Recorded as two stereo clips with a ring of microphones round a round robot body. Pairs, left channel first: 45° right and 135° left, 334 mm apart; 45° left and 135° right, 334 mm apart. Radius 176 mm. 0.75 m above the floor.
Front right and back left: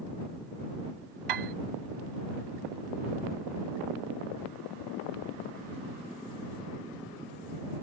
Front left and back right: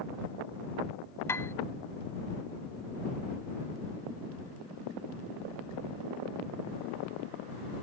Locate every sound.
1.3 s a piano: 130° left